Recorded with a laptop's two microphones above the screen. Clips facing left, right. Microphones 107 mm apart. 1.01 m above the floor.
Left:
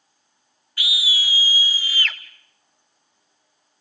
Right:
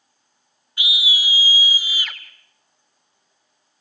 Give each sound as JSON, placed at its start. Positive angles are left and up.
{"t": 0.8, "sound": "a scream", "side_deg": -20, "distance_m": 2.0}